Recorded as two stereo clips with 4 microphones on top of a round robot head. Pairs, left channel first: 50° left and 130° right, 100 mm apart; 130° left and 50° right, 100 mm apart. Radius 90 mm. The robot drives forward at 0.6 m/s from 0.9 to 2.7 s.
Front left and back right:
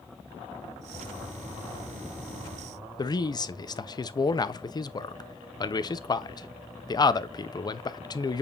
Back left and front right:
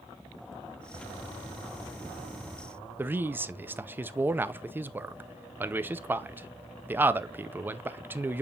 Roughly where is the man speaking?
Ahead.